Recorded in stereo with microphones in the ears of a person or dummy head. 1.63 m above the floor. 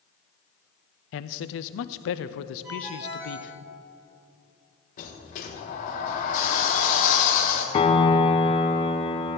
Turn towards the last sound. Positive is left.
turn(degrees=30)  # may be behind; listen again after turning